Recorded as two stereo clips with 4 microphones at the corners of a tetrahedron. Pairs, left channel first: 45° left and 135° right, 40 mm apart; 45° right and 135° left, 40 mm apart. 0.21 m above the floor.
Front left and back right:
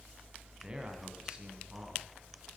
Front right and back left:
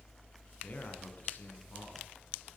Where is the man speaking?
70° right, 1.8 m.